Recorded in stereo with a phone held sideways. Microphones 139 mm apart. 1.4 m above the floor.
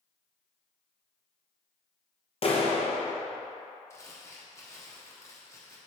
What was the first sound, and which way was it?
A clap, 45° left (ahead or behind).